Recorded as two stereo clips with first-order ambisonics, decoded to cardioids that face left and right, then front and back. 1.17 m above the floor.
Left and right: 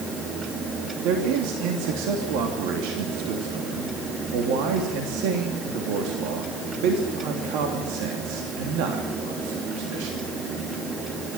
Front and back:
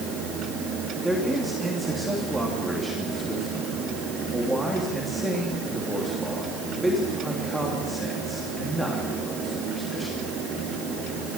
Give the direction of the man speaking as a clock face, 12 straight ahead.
3 o'clock.